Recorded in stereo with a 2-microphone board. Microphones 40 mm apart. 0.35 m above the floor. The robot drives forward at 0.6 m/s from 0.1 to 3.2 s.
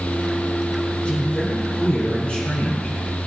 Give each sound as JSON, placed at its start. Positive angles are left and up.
{"t": 1.0, "sound": "a man speaking", "side_deg": 45, "distance_m": 5.5}